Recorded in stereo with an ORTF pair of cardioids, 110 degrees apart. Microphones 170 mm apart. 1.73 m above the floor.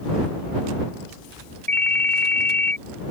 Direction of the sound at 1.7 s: 10° left.